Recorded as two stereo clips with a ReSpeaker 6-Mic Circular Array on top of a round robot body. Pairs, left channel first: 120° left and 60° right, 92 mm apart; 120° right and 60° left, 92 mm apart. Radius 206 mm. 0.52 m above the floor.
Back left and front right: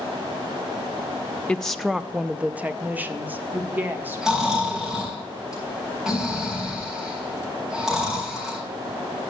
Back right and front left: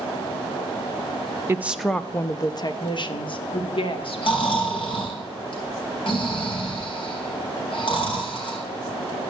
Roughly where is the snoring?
Behind right.